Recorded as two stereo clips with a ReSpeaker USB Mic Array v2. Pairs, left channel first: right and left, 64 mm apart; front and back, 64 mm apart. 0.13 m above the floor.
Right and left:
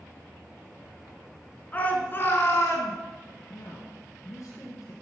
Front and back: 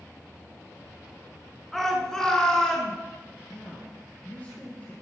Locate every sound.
1.7 s a shout: 80° right, 1.7 m; by 2.9 s 70° right, 2.5 m
3.5 s a man speaking: 55° right, 1.9 m